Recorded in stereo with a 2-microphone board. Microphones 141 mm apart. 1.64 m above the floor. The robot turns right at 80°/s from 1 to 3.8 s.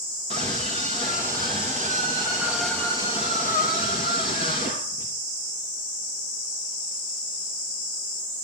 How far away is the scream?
About 3 m.